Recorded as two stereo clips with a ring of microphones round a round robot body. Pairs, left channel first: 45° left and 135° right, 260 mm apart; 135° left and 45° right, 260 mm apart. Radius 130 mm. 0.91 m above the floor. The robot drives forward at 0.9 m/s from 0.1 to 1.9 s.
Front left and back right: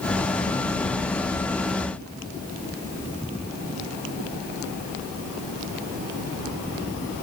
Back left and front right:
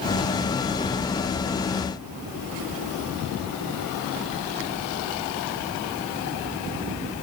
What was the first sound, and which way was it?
Only background noise.